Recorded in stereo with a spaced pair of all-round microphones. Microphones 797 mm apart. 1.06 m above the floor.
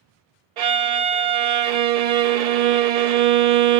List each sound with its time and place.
0.6 s a violin: 55° right (ahead or behind), 0.5 m